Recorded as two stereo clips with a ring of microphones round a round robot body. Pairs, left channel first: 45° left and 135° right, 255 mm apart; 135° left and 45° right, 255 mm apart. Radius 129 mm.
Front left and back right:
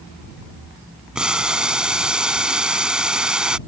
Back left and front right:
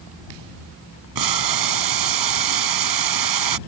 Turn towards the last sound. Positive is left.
turn(degrees=-50)